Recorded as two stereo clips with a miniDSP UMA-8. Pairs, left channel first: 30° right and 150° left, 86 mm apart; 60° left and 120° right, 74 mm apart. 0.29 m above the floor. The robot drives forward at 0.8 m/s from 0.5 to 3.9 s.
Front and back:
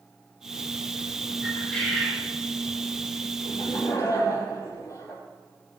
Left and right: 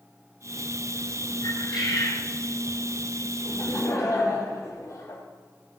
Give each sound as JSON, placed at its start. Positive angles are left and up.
{"t": 1.4, "sound": "a bird", "azimuth_deg": 50, "distance_m": 4.5}
{"t": 3.5, "sound": "laughter", "azimuth_deg": 20, "distance_m": 7.0}